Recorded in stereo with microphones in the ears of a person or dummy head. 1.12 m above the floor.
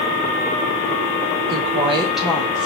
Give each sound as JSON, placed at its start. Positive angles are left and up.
{"t": 1.5, "sound": "a woman speaking", "side_deg": -50, "distance_m": 0.7}